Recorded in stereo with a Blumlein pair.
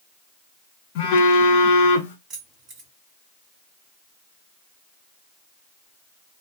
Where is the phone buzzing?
50° left, 0.8 m.